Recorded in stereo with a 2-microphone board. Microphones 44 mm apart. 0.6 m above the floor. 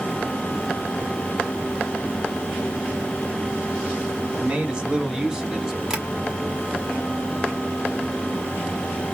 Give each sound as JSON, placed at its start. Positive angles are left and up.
{"t": 4.3, "sound": "a man speaking", "side_deg": -20, "distance_m": 1.5}
{"t": 5.9, "sound": "tapping", "side_deg": -10, "distance_m": 1.5}